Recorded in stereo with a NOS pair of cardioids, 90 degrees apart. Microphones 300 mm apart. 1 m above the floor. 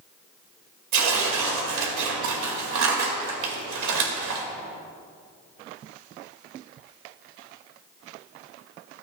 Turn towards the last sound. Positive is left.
turn(degrees=-70)